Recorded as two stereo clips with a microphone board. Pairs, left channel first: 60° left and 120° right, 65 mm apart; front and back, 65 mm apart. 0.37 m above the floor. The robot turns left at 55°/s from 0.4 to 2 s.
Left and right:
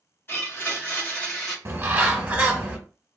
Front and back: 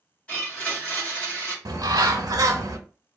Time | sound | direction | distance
0.3 | a blender | 45° left | 1.3 m
1.6 | a bird | 165° right | 0.6 m